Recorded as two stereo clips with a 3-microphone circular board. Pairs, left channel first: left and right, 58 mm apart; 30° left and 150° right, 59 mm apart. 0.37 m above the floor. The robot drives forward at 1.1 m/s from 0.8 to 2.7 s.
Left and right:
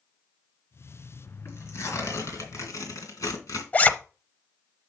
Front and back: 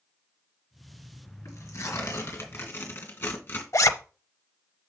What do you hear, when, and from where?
1.4 s tearing paper: 55° left, 3.5 m; by 3.6 s 75° left, 3 m
3.7 s a zipper: 30° left, 0.7 m